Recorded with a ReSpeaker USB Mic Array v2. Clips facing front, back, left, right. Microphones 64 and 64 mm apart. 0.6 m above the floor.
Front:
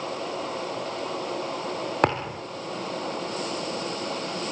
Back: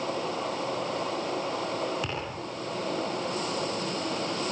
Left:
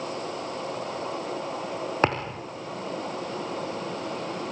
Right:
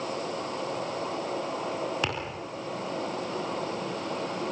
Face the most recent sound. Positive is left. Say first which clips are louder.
# front 10 dB, left 7 dB
turn(degrees=35)